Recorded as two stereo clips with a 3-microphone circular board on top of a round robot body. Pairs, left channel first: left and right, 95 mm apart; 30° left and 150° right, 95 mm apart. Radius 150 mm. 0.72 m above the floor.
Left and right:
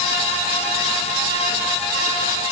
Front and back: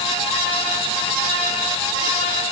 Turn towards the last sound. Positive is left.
No sound to turn to.